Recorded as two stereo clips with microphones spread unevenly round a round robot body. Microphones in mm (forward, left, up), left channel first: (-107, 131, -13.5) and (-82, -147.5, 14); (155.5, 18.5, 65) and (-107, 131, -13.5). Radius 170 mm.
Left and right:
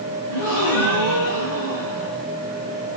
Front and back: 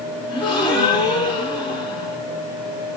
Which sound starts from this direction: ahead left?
A gasp, at 0.3 s.